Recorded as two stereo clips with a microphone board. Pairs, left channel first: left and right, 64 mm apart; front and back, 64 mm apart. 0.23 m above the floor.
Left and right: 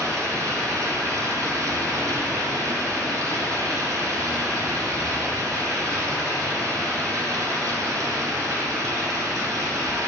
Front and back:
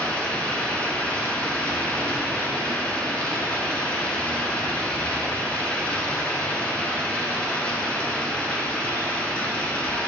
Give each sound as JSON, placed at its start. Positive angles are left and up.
{"t": 0.0, "sound": "running water", "azimuth_deg": -70, "distance_m": 1.6}